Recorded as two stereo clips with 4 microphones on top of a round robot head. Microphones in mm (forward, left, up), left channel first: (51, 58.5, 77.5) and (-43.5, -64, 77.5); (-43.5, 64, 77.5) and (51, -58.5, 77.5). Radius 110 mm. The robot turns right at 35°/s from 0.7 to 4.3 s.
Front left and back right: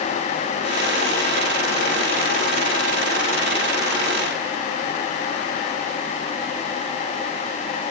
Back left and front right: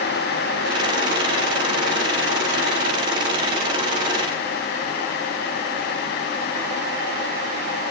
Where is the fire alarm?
No fire alarm in this recording.